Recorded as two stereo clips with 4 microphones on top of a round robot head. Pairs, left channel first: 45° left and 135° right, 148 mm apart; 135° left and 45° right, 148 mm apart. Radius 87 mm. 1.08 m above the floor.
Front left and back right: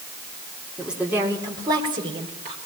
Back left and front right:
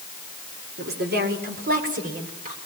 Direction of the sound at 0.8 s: 50° right.